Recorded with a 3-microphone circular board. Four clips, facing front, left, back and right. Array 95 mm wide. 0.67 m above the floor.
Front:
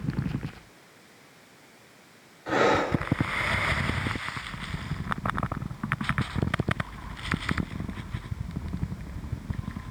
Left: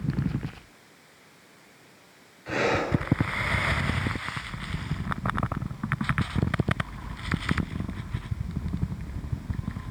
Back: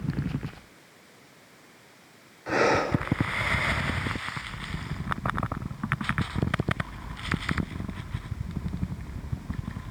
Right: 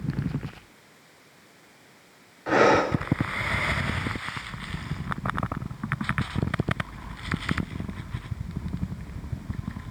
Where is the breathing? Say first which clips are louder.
Right 6 dB, even; 85° right, 1.9 m.